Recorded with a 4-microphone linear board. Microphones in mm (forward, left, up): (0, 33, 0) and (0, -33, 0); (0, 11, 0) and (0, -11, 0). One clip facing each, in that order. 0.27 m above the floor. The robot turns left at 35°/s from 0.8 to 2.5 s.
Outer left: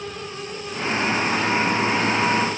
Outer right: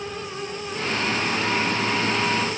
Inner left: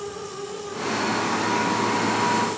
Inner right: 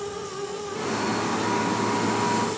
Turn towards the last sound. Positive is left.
No sound to turn to.